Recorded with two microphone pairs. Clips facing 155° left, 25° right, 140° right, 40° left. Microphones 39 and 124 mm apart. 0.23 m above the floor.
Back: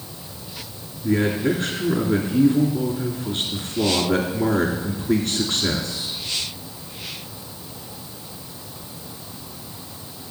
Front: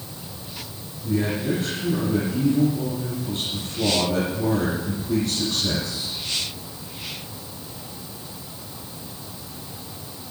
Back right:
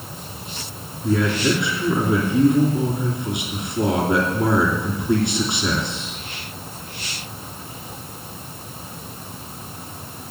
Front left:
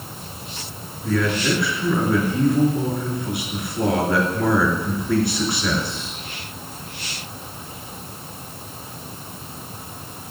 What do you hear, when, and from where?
1.0 s a man speaking: 150° left, 3 m